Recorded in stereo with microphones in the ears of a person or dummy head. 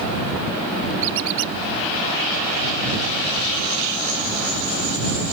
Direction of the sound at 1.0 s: 75° right (ahead or behind).